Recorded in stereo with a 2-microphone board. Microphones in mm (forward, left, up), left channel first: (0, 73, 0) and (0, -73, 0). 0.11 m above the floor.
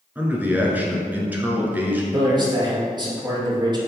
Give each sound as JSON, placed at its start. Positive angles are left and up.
{"t": 0.1, "sound": "a man speaking", "side_deg": -15, "distance_m": 1.3}
{"t": 2.1, "sound": "a man speaking", "side_deg": -30, "distance_m": 2.0}